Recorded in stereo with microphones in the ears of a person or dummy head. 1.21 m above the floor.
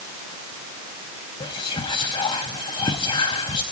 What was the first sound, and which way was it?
Whispering, 20° left (ahead or behind).